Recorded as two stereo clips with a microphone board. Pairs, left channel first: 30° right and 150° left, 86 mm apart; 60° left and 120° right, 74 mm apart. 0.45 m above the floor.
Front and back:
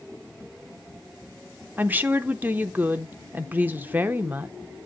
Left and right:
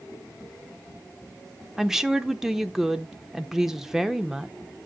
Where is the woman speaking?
165° left, 0.7 m.